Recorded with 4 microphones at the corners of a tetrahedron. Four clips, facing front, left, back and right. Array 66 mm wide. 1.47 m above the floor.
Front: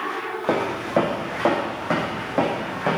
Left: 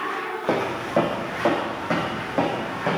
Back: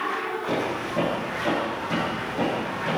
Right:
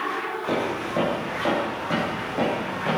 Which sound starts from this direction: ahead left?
Footsteps, at 0.5 s.